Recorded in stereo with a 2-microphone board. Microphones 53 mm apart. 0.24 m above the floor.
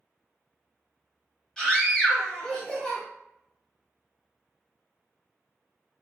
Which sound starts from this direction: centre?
A scream, at 1.6 s.